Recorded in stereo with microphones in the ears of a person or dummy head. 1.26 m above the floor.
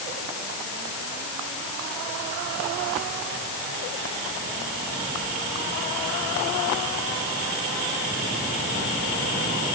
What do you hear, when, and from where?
Only background noise.